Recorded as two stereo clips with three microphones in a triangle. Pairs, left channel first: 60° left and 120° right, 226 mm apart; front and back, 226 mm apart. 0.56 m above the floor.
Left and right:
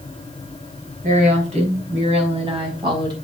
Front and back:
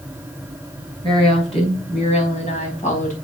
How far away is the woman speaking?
About 4.5 m.